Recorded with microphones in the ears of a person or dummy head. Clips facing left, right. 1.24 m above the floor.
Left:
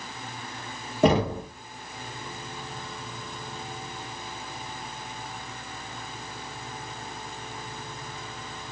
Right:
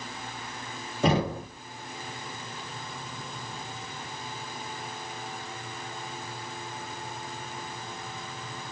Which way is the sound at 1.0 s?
50° left (ahead or behind).